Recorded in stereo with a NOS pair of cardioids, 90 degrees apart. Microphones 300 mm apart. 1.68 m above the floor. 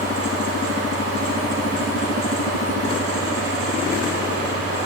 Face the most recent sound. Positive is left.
turn(degrees=-50)